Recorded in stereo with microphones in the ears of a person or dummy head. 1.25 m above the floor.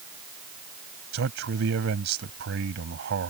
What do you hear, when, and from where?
1.1 s a man speaking: 65° right (ahead or behind)